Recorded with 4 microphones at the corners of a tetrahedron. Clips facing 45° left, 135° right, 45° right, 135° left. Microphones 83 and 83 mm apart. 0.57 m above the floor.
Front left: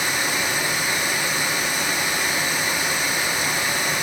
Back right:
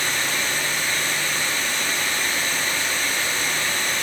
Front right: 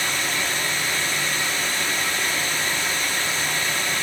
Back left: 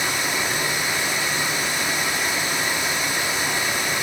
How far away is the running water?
About 0.7 m.